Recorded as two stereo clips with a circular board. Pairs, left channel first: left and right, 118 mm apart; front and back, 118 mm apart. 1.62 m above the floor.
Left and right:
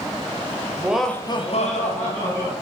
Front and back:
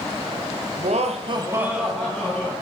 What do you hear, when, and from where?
0.8 s laughter: 165° right, 0.7 m; by 2.5 s 80° left, 1.4 m